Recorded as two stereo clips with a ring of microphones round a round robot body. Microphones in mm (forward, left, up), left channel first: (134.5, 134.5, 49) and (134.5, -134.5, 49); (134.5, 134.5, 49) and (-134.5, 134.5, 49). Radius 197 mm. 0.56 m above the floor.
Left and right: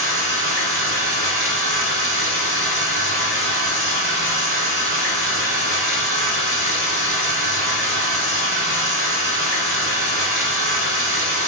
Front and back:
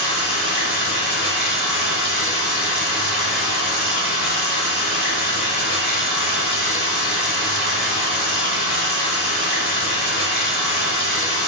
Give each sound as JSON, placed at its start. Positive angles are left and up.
{"t": 0.0, "sound": "running water", "azimuth_deg": -50, "distance_m": 1.5}